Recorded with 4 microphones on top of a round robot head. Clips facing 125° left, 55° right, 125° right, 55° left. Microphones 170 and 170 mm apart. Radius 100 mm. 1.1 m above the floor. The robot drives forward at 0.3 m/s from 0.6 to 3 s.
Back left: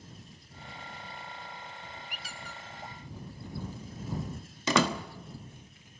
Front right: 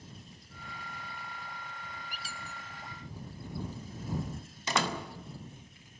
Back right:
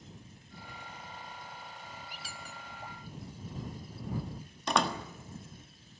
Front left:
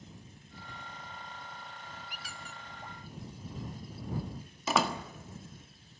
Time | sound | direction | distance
2.1 | a squeak | 75° right | 0.5 m
4.7 | a door slam | 140° left | 1.3 m